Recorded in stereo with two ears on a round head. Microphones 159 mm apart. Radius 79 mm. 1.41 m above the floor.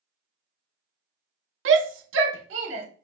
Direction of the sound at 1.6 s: 80° right.